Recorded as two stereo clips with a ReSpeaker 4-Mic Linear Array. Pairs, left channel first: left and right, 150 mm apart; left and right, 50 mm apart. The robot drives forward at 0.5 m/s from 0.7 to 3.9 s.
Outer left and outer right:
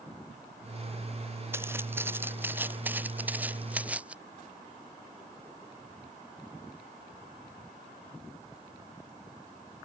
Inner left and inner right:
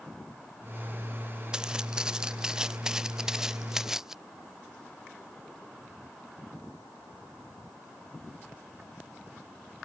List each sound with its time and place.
1.5 s footsteps: 15° right (ahead or behind); by 4.2 s 10° right (ahead or behind)